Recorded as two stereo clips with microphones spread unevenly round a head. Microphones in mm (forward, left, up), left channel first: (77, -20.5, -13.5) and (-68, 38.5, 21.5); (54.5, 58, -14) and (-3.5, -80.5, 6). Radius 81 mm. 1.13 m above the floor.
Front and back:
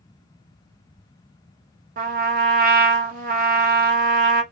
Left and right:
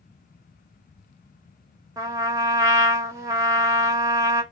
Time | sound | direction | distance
2.0 | a trumpet | 175° left | 0.6 m